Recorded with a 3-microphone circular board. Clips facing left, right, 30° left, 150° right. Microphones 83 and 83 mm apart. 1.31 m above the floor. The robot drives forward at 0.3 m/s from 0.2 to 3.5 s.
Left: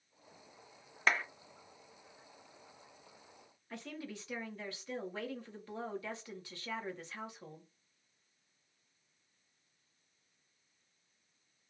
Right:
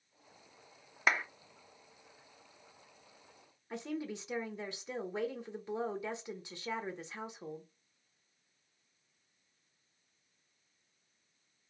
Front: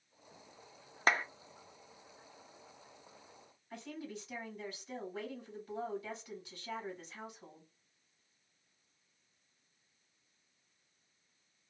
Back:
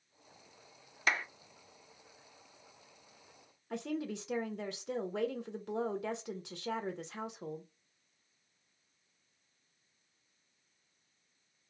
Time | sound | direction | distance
1.1 | a clap | 15° right | 0.6 m
3.7 | a woman speaking | 160° right | 0.8 m